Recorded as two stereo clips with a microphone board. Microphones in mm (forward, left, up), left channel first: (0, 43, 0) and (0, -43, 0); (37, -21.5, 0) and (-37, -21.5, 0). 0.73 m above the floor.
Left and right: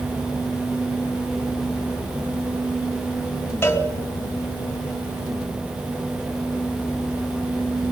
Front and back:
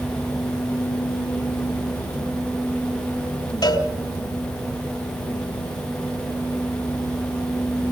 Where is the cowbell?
25° left, 3.5 m.